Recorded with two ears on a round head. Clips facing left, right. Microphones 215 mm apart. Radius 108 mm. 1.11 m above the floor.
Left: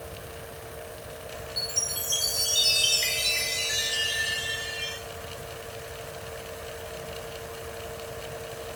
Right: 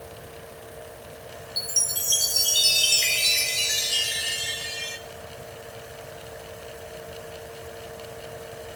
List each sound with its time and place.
1.6 s a chime: 60° right (ahead or behind), 2 m